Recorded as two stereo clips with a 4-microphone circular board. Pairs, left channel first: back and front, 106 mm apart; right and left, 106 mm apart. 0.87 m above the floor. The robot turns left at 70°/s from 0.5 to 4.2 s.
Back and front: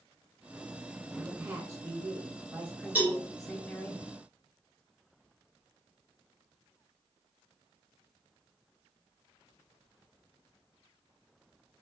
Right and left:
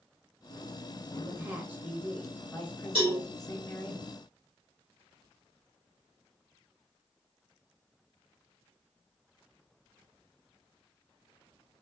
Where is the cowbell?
75° left, 1.7 m; by 3.2 s 55° left, 1.7 m.